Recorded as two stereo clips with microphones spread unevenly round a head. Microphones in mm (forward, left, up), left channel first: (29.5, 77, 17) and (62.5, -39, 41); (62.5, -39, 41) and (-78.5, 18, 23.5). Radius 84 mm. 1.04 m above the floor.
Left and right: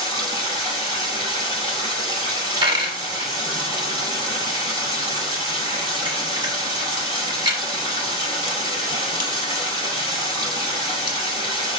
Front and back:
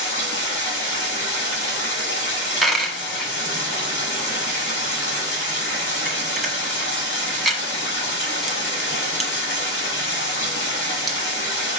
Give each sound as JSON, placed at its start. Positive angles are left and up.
{"t": 0.0, "sound": "running water", "azimuth_deg": -25, "distance_m": 4.5}
{"t": 2.6, "sound": "a dropped coin", "azimuth_deg": -105, "distance_m": 1.2}